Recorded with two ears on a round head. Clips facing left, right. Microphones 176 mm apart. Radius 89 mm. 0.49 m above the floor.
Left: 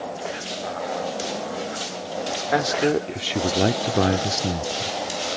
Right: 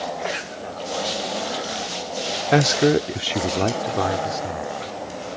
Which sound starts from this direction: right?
A man speaking, at 2.5 s.